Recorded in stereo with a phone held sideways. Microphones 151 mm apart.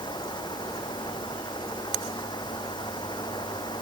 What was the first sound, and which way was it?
A fan, 30° left (ahead or behind).